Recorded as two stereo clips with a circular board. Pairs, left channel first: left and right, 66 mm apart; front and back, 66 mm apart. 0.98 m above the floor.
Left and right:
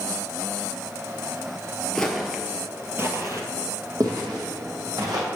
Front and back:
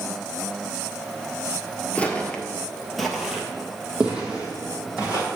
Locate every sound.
1.9 s footsteps: 30° left, 1.0 m; by 5.3 s 105° right, 2.5 m